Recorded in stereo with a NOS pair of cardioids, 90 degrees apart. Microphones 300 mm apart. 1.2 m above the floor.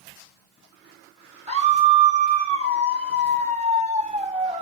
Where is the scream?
20° right, 4 m.